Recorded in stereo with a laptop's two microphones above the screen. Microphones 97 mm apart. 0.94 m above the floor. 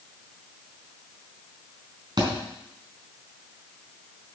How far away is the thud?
About 4 m.